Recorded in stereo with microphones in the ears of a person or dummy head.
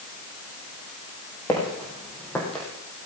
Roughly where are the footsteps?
Centre.